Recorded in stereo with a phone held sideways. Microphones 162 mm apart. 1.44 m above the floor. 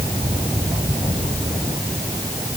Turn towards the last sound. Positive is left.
No sound to turn to.